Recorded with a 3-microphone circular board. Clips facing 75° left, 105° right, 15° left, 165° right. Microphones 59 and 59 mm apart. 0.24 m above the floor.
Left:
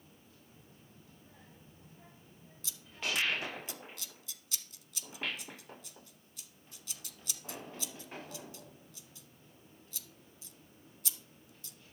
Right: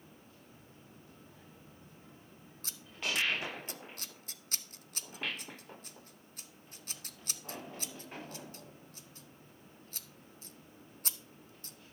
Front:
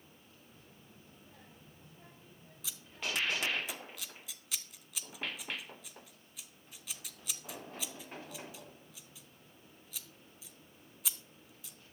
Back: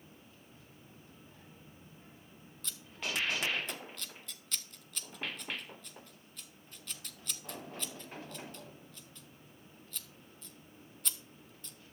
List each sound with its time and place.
0.5 s a child speaking: 5° right, 9 m; by 3.6 s 15° left, 9.5 m
2.6 s scissors: 65° right, 0.7 m